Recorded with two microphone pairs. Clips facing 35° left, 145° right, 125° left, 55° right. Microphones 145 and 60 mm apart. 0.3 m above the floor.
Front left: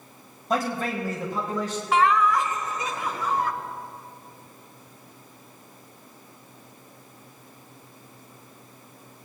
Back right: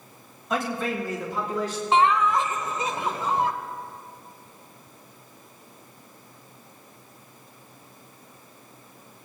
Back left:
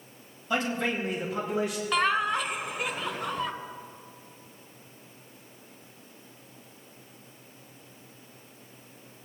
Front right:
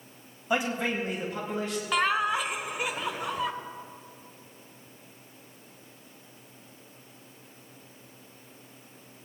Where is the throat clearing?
No throat clearing in this recording.